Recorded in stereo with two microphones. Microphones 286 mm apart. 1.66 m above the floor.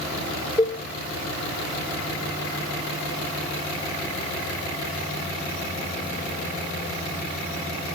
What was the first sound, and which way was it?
A cowbell, 20° left (ahead or behind).